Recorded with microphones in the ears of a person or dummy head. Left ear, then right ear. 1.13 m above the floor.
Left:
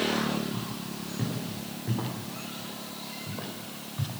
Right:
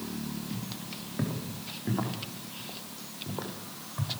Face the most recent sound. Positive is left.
turn(degrees=-35)  # may be behind; listen again after turning